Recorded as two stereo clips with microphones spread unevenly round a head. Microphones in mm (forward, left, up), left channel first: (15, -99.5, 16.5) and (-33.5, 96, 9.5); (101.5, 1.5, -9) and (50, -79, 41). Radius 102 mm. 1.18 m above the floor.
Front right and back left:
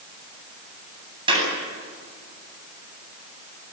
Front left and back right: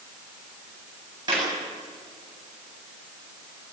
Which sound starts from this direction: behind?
A clap, at 1.3 s.